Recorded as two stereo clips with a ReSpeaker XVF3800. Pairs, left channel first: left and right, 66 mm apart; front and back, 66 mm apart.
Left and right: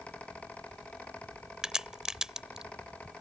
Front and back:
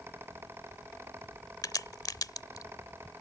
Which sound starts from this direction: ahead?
A crack, at 1.6 s.